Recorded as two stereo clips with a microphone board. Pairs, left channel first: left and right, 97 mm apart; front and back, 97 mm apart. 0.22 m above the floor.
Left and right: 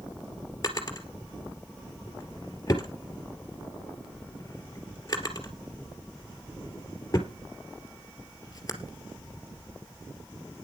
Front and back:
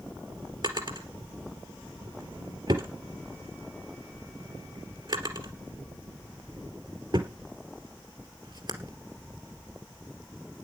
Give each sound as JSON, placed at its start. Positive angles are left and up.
{"t": 0.6, "sound": "a drawer", "azimuth_deg": 140, "distance_m": 2.5}